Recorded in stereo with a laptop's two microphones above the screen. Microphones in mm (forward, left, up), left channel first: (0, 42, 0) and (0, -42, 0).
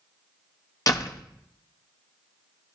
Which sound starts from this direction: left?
A door slam, at 0.9 s.